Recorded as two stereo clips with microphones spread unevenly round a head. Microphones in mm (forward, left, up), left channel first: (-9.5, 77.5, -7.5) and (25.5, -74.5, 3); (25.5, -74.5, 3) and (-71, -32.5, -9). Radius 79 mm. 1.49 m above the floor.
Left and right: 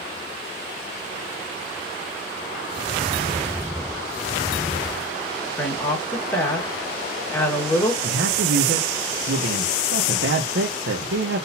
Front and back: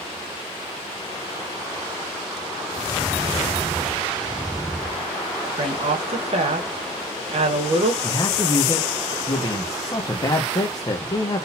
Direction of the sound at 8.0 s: 75° right.